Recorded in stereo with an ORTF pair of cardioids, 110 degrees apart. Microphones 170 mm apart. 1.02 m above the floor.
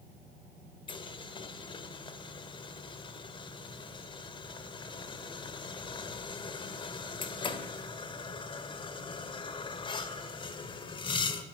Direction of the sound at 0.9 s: 30° left.